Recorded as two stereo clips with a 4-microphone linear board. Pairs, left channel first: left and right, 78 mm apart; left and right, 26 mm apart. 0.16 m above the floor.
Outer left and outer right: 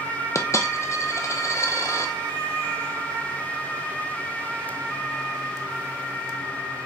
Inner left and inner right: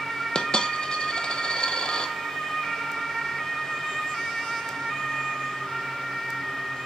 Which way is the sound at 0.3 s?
40° left (ahead or behind).